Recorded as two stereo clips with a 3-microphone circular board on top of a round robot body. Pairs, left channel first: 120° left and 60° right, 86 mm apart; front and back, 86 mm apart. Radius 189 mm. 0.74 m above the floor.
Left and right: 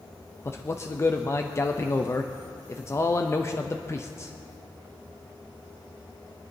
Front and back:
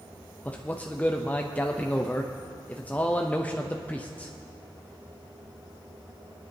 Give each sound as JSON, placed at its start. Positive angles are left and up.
{"t": 0.5, "sound": "a man speaking", "azimuth_deg": 70, "distance_m": 0.9}